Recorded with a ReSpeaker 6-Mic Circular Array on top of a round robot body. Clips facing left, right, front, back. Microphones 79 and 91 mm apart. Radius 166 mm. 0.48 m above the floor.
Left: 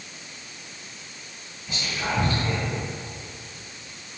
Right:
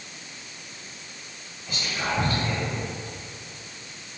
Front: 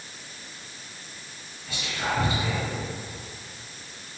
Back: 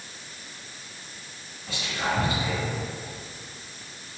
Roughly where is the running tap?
No running tap in this recording.